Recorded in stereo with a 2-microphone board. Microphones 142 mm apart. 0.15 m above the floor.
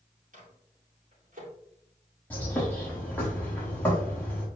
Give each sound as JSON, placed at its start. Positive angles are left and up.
{"t": 0.3, "sound": "a microwave", "side_deg": -65, "distance_m": 3.5}
{"t": 2.3, "sound": "a bird", "side_deg": 15, "distance_m": 3.5}